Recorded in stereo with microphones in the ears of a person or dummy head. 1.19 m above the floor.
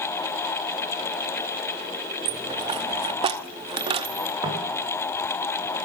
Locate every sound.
2.2 s a dropped coin: 25° right (ahead or behind), 0.9 m
4.4 s footsteps: 25° right (ahead or behind), 9 m